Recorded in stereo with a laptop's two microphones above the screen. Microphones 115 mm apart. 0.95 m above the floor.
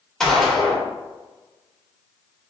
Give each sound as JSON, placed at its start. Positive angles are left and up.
{"t": 0.2, "sound": "a gunshot", "side_deg": 5, "distance_m": 1.1}